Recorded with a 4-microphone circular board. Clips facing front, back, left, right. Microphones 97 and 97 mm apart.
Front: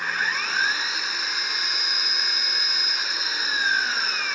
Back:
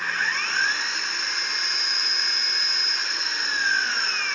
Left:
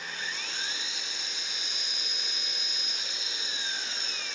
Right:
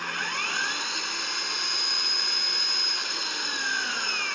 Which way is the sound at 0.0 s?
85° right.